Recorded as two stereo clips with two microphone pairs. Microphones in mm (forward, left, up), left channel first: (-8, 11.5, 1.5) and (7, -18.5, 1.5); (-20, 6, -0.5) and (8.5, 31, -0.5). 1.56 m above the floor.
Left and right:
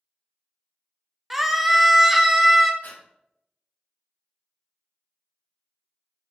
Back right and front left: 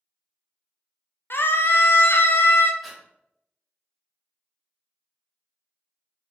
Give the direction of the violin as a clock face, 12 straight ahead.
No violin in this recording.